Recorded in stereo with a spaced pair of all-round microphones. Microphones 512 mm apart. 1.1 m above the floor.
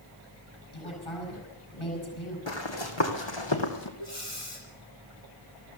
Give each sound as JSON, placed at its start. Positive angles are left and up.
{"t": 0.7, "sound": "a woman speaking", "side_deg": 85, "distance_m": 8.0}
{"t": 2.5, "sound": "running footsteps", "side_deg": 65, "distance_m": 2.5}
{"t": 4.0, "sound": "breathing", "side_deg": 80, "distance_m": 6.5}